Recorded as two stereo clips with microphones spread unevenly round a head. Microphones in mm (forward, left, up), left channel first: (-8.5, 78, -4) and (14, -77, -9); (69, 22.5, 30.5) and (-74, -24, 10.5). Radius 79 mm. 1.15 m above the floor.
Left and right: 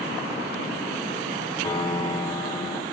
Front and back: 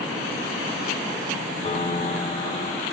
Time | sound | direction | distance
1.6 | a piano | 40° left | 0.8 m